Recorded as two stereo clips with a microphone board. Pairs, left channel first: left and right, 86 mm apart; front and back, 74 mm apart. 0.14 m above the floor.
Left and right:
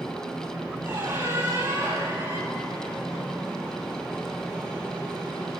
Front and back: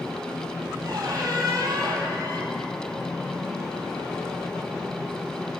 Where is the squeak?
150° right, 1.1 m.